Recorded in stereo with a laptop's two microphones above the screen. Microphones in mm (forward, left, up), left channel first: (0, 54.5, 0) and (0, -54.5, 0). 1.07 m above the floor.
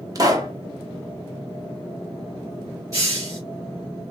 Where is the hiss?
30° right (ahead or behind), 3.5 m.